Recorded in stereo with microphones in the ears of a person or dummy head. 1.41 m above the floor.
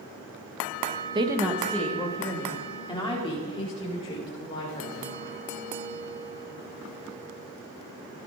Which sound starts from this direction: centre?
A woman speaking, at 1.1 s.